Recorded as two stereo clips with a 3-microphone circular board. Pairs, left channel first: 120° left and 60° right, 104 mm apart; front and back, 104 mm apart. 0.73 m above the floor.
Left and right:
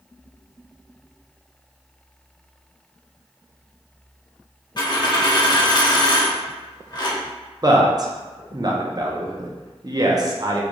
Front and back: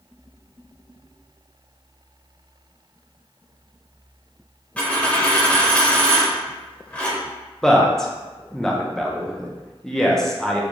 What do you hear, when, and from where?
4.8 s a dropped coin: 75° left, 0.7 m
7.6 s a man speaking: 85° right, 0.6 m